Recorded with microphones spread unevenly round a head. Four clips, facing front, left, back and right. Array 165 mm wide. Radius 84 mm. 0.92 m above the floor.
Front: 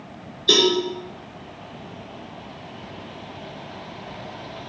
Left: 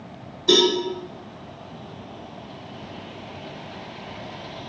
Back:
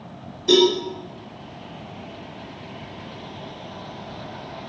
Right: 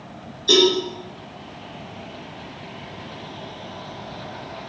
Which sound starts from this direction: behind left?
A cowbell, at 0.5 s.